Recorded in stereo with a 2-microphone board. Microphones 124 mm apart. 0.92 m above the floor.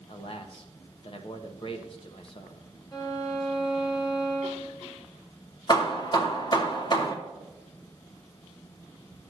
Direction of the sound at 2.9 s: 35° left (ahead or behind).